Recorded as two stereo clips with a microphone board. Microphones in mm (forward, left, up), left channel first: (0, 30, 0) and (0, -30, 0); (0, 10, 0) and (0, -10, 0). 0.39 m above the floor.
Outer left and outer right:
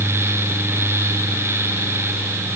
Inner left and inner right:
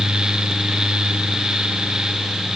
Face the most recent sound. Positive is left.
No sound to turn to.